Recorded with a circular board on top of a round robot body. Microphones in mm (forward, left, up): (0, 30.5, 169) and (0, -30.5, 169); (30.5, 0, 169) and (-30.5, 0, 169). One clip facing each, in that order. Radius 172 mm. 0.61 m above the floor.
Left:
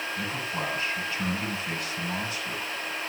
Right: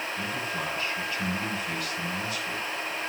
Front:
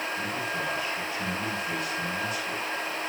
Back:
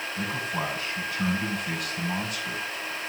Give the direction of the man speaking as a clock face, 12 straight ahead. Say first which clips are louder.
Even, back 1 dB; 7 o'clock.